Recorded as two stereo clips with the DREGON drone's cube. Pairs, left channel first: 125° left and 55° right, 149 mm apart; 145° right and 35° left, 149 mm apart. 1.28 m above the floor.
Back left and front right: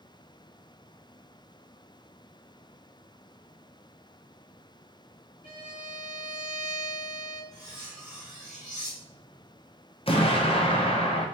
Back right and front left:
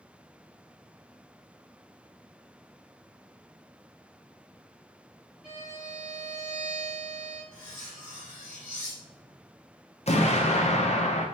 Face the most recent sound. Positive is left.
turn(degrees=175)